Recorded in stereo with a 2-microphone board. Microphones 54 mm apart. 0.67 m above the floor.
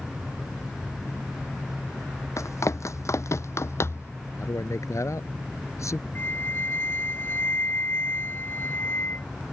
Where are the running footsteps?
70° left (ahead or behind); by 4.1 s 50° left (ahead or behind).